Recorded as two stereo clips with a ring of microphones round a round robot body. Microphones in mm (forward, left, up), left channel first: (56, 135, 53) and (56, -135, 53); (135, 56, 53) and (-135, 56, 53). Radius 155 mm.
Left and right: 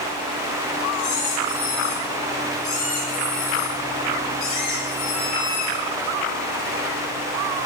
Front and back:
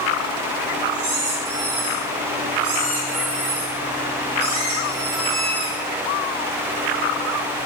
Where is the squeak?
145° left, 4.5 m.